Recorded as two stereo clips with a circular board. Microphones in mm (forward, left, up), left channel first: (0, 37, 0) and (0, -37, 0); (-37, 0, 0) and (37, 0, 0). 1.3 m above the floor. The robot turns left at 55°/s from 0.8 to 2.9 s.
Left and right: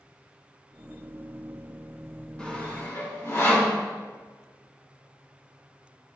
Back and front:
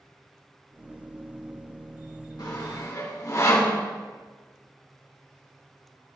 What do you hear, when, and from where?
2.4 s sawing: 165° left, 2.5 m; by 3.8 s 140° left, 2.5 m